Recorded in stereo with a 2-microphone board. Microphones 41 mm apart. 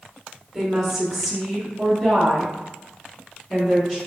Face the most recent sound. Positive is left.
turn(degrees=10)  # may be behind; listen again after turning